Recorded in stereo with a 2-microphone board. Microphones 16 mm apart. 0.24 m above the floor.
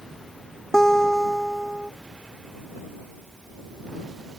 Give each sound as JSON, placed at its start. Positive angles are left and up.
{"t": 0.7, "sound": "a guitar", "side_deg": 35}